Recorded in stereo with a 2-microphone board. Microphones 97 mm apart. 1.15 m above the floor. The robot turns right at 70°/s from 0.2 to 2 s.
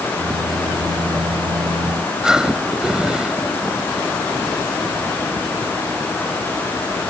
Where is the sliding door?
I don't hear a sliding door.